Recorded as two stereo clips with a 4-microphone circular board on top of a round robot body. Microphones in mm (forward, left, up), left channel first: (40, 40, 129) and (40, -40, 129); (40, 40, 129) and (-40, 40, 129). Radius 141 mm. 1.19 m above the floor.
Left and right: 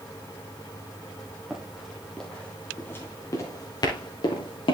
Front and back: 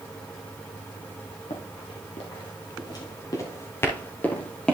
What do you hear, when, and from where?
1.5 s running footsteps: straight ahead, 2.5 m; by 4.8 s 80° left, 2.5 m